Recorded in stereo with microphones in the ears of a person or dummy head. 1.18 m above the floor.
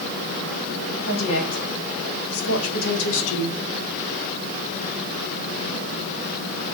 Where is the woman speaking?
75° left (ahead or behind), 4 m; by 3.6 s 65° left (ahead or behind), 2.5 m.